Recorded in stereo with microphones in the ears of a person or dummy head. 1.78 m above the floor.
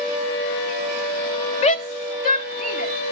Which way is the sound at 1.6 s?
35° left (ahead or behind).